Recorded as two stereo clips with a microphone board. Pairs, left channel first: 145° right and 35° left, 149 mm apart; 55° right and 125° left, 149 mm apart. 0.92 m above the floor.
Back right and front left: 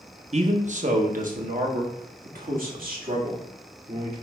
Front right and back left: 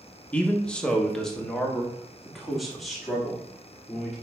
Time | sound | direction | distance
0.3 | a man speaking | 25° left | 1.0 m